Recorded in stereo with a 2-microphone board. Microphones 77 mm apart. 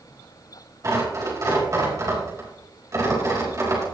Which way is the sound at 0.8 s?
45° right (ahead or behind).